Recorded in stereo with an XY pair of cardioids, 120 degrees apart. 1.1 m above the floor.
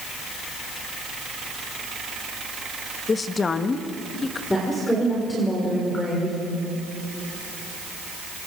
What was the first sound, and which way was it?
A woman speaking, 30° left.